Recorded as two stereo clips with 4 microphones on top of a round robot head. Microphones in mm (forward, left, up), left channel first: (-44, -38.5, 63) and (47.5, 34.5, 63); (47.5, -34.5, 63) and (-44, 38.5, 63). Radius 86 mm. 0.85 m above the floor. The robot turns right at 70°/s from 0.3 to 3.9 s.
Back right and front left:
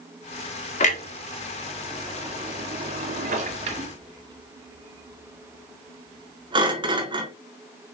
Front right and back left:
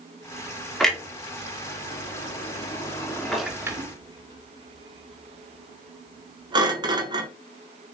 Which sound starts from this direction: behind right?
A clunk, at 0.8 s.